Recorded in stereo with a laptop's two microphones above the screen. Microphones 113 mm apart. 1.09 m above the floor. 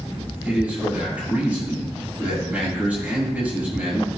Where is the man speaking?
15° right (ahead or behind), 6 m.